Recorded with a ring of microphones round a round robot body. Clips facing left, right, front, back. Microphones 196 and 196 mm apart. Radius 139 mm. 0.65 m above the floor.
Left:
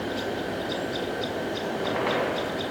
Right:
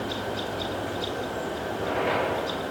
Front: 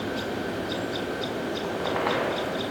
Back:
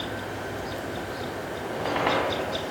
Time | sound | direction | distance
1.6 | a squeak | 120° left | 1.6 m